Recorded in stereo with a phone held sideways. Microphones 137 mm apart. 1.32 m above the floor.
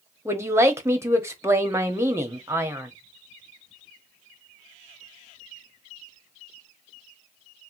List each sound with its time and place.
0.2 s a man speaking: 20° right (ahead or behind), 0.9 m